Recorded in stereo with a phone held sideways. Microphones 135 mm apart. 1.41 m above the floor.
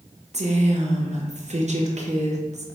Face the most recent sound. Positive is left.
turn(degrees=-55)  # may be behind; listen again after turning